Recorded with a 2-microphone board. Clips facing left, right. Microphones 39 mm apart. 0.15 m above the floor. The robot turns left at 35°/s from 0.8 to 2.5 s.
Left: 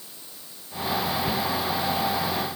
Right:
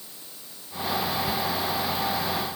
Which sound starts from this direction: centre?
A cupboard door, at 1.3 s.